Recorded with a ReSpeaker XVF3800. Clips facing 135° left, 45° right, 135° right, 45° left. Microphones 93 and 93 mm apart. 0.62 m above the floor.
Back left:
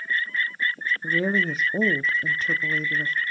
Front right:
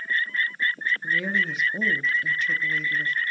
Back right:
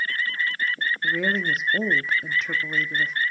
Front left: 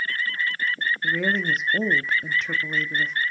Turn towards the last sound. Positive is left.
turn(degrees=140)